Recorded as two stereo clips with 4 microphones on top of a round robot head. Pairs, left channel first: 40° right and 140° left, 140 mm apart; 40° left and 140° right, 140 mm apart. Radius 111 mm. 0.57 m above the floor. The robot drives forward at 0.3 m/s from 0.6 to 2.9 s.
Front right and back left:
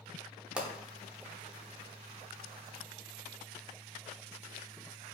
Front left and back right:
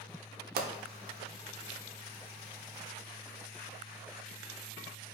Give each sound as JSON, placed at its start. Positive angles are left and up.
{"t": 0.6, "sound": "a pop", "azimuth_deg": -135, "distance_m": 0.5}